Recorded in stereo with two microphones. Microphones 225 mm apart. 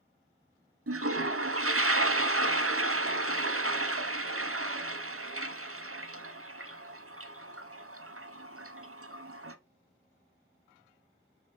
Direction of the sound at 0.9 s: 70° right (ahead or behind).